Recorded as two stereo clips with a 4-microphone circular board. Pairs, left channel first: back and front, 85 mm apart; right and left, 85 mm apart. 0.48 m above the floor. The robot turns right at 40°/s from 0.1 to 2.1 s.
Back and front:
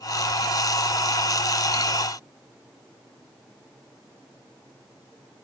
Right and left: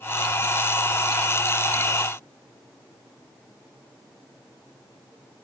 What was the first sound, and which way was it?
Only background noise.